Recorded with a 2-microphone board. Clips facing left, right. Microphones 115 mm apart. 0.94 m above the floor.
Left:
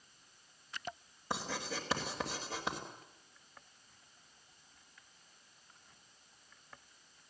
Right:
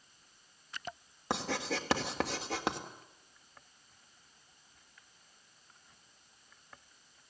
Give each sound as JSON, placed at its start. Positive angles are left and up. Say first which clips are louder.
{"t": 1.3, "sound": "writing", "louder": "right 5 dB", "side_deg": -75, "distance_m": 3.0}